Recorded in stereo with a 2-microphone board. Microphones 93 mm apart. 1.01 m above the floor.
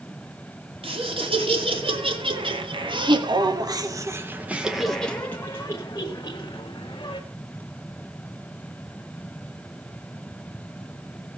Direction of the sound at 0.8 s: 80° right.